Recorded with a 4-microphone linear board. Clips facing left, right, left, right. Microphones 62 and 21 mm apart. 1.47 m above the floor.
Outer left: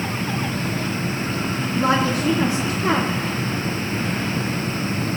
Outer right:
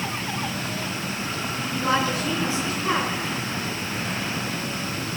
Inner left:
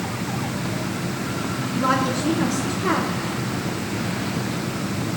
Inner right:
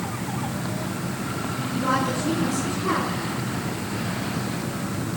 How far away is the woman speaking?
About 2.5 m.